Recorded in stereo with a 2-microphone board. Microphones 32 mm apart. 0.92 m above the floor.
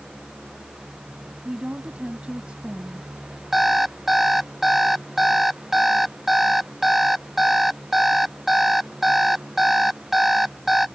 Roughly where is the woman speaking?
Right.